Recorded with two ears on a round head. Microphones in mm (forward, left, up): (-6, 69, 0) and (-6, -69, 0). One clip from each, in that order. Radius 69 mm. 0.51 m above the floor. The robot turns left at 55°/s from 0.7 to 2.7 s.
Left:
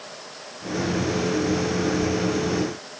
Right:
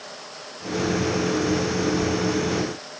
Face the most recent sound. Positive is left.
No sound to turn to.